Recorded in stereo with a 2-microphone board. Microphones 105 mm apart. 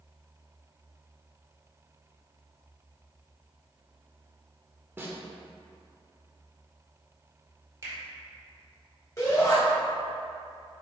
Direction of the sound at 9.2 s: 30° left (ahead or behind).